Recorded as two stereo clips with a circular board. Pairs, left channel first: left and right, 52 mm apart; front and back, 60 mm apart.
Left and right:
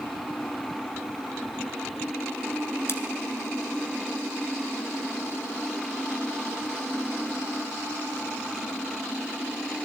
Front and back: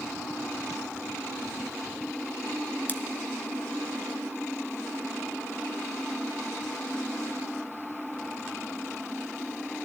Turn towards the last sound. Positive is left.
turn(degrees=55)